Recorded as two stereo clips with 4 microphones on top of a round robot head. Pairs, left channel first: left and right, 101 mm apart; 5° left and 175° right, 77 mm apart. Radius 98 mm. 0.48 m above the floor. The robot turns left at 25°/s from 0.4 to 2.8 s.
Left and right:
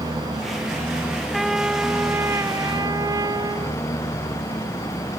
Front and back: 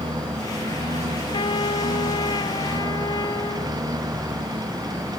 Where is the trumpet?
Straight ahead; by 3.8 s 35° right.